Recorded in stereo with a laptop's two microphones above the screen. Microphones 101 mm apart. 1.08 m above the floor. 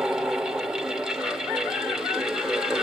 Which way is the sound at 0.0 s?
5° right (ahead or behind).